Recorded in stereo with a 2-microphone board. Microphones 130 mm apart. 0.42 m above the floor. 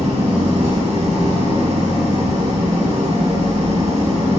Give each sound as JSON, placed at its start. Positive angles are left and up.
{"t": 0.0, "sound": "an engine running", "side_deg": -60, "distance_m": 3.5}